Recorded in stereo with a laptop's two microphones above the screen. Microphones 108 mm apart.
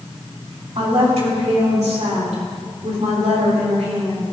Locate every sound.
0.8 s a woman speaking: 65° right (ahead or behind), 2.5 m; by 4.2 s 75° right (ahead or behind), 4 m